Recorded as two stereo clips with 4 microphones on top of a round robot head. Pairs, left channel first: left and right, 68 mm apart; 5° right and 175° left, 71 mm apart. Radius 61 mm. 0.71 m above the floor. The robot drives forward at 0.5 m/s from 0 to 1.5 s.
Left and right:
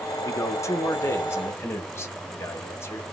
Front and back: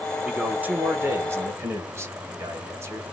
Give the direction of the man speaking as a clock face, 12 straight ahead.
9 o'clock.